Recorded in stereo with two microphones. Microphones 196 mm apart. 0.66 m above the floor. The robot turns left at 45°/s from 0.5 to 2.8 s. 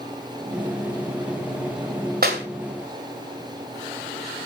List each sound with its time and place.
2.2 s a clap: 50° right (ahead or behind), 2 m; by 2.4 s 60° right (ahead or behind), 2 m